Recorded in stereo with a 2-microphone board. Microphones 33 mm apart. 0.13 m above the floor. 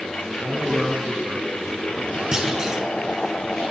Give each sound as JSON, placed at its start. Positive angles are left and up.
{"t": 0.4, "sound": "a man speaking", "side_deg": -40, "distance_m": 1.3}
{"t": 2.3, "sound": "a clunk", "side_deg": -25, "distance_m": 1.1}